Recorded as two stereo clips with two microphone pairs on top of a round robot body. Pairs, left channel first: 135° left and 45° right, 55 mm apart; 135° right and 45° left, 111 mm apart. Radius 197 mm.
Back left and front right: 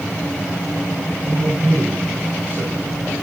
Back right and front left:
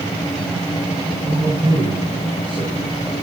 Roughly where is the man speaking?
Ahead.